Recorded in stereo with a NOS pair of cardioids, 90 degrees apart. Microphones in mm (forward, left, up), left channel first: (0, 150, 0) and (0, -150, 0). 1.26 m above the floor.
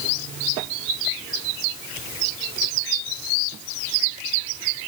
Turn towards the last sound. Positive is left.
No sound to turn to.